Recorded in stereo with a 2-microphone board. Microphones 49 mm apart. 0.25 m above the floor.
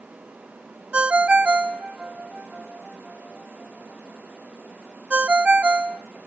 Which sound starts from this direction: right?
A ringtone, at 0.9 s.